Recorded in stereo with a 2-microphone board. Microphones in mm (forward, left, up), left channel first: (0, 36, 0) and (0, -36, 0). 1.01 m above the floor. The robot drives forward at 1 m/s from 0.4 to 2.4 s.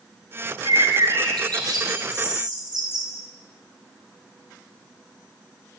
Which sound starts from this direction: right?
A bird, at 0.7 s.